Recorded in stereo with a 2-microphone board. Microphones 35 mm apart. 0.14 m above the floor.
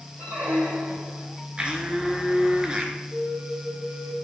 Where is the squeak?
75° right (ahead or behind), 3 m.